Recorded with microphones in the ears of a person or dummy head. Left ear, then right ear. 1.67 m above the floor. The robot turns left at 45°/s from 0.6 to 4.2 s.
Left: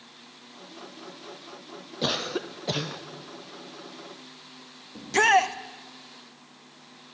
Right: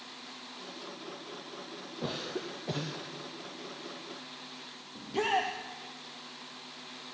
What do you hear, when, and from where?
2.0 s a cough: 70° left, 0.5 m; by 3.0 s 25° left, 0.5 m
5.0 s a shout: 65° left (ahead or behind), 0.8 m